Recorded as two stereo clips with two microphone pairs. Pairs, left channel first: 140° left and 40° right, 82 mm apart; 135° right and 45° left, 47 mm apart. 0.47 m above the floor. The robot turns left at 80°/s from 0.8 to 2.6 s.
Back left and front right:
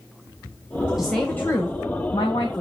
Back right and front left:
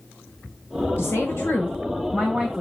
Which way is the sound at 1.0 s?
125° right.